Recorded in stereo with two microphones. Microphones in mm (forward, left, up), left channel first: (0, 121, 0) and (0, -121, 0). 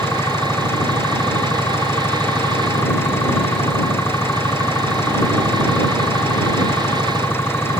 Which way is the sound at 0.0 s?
10° left (ahead or behind).